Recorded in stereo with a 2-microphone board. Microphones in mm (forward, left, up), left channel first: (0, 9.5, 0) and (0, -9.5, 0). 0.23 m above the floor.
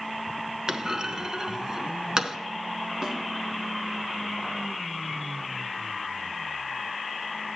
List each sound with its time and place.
0.7 s a clunk: 40° right (ahead or behind), 0.7 m
3.0 s a snare drum: 50° right (ahead or behind), 2.5 m